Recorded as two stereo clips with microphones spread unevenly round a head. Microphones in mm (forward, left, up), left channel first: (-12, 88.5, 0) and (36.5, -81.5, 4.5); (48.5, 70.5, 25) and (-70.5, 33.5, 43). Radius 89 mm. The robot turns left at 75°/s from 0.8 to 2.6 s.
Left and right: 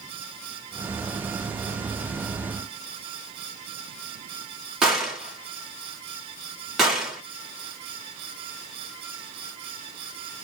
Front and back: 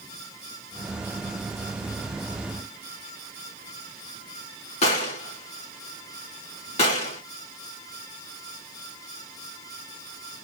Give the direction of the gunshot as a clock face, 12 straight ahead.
12 o'clock.